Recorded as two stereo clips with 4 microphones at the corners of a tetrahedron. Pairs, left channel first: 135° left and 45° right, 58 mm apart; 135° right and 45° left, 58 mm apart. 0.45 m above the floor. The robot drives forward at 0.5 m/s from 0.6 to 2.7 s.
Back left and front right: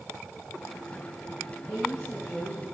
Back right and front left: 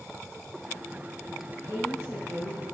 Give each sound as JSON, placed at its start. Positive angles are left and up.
{"t": 1.7, "sound": "a woman speaking", "azimuth_deg": 60, "distance_m": 3.0}